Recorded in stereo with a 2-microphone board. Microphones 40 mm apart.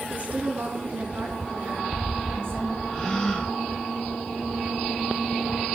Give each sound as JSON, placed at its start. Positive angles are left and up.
{"t": 0.1, "sound": "a woman speaking", "side_deg": -35, "distance_m": 1.1}
{"t": 2.9, "sound": "a gasp", "side_deg": 15, "distance_m": 1.2}